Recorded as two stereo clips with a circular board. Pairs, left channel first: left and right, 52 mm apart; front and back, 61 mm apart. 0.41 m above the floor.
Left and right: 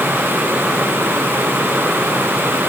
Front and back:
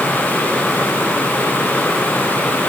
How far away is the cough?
I don't hear a cough.